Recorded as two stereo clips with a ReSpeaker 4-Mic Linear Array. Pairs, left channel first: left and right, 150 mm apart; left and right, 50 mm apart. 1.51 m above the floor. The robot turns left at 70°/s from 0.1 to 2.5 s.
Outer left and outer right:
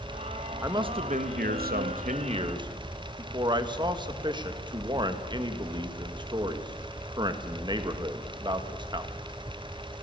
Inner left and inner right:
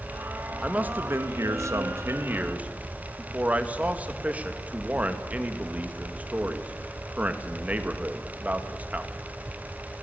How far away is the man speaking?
About 1.9 m.